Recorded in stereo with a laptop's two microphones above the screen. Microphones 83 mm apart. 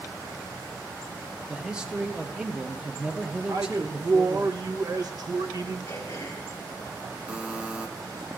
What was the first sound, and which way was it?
A man speaking, 10° right (ahead or behind).